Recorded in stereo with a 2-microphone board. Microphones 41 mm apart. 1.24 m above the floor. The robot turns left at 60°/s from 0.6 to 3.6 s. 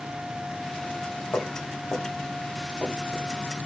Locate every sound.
1.3 s footsteps: 70° left (ahead or behind), 5.5 m; by 3.3 s 35° right (ahead or behind), 8.5 m